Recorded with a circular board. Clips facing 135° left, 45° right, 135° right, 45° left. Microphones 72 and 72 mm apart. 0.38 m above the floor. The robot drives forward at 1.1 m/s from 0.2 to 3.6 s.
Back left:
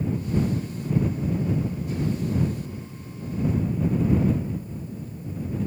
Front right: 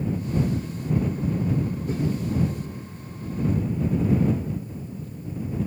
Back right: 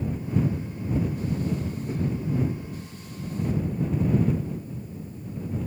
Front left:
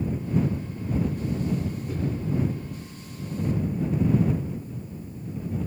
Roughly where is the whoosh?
Right.